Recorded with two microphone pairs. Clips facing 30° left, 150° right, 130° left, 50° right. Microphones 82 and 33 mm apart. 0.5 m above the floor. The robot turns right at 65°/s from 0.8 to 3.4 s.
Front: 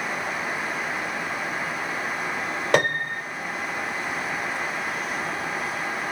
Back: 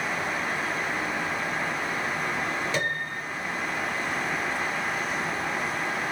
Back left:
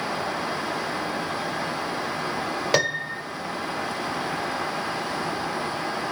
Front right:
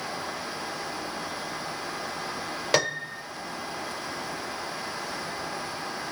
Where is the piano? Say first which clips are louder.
Front 7 dB, back left 1 dB; 45° left, 1.4 m; by 3.2 s 75° left, 1.4 m.